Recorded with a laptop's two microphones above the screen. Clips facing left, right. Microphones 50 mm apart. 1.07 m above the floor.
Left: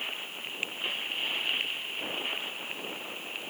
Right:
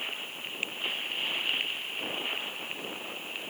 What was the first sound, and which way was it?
Only background noise.